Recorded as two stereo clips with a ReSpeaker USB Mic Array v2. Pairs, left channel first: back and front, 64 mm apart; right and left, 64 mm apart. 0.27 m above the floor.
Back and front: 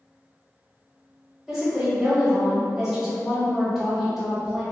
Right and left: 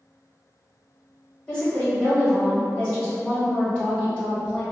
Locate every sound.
1.5 s a woman speaking: 65° right, 1.3 m